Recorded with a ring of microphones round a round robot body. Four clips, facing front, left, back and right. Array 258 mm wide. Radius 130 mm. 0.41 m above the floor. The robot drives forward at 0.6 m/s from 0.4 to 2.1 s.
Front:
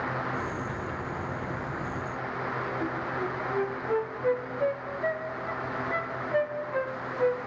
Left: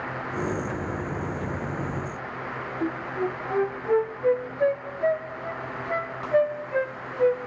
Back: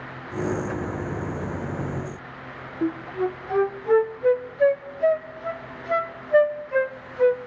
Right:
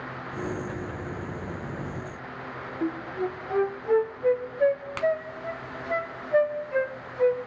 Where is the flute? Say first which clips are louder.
Left 1 dB, back 5 dB; straight behind, 0.9 m.